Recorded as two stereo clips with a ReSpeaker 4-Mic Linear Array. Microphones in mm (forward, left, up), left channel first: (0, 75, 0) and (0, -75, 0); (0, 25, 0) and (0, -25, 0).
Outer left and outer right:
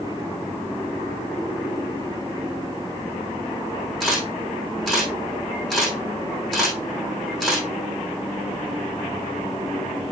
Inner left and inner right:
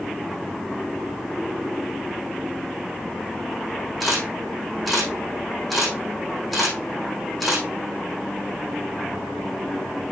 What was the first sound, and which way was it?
A camera shutter, centre (ahead or behind).